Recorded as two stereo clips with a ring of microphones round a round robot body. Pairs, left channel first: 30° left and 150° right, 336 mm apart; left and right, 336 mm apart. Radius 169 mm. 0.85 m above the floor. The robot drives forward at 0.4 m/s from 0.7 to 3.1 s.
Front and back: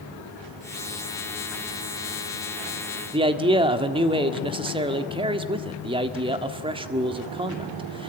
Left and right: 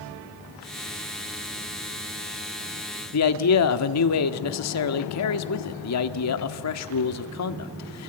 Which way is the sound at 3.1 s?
135° left.